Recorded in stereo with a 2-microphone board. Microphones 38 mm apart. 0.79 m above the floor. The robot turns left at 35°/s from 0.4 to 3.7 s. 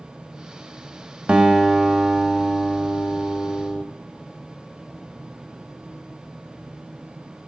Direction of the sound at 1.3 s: 140° right.